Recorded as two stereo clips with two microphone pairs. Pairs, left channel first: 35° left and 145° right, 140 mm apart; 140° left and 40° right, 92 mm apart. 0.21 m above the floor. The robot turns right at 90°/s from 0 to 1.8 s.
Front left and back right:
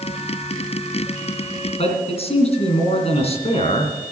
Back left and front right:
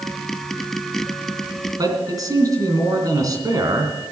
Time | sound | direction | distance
1.8 | a man speaking | straight ahead | 3 m